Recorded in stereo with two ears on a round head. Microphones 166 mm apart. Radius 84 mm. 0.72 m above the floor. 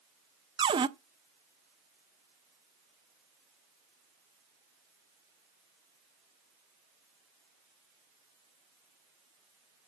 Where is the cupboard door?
25° right (ahead or behind), 0.7 m.